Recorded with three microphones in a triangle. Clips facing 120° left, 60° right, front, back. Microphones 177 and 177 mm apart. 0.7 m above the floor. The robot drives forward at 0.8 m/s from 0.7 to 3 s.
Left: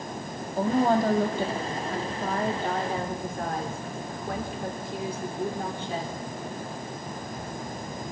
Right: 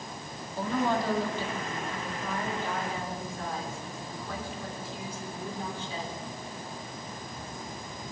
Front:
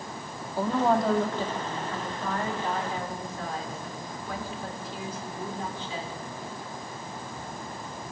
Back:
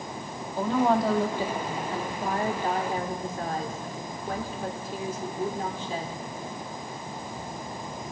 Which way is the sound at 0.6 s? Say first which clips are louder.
Left 6 dB, back 1 dB; 80° left.